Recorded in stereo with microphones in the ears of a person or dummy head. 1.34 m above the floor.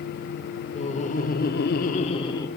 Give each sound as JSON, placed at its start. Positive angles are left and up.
{"t": 0.7, "sound": "laughter", "side_deg": 30, "distance_m": 1.0}